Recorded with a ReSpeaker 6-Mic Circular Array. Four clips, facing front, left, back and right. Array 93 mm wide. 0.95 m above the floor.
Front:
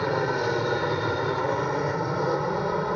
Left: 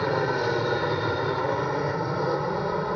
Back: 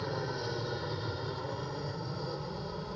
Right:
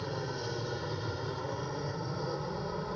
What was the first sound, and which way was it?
An aircraft, 50° left.